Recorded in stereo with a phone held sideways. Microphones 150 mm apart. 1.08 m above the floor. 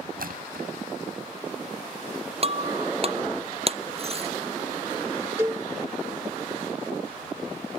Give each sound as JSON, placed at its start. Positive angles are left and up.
{"t": 0.2, "sound": "a splash", "side_deg": -80}
{"t": 2.4, "sound": "breaking glass", "side_deg": -40}
{"t": 5.4, "sound": "a cowbell", "side_deg": -20}